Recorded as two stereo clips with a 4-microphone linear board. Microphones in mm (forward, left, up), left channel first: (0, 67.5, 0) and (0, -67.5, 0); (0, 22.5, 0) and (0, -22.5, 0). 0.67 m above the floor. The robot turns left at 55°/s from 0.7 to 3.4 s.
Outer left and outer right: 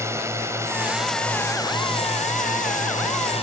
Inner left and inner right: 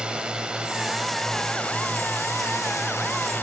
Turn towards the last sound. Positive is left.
turn(degrees=55)